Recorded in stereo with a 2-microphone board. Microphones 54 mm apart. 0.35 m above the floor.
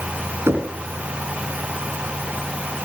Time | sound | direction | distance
0.5 | knocking | 55° right (ahead or behind) | 3 m